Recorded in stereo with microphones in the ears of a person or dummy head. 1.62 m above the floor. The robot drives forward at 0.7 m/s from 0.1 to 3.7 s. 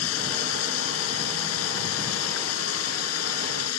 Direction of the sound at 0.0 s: 90° left.